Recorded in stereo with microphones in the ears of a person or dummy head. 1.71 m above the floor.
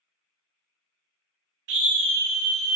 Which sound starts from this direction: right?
A scream, at 1.7 s.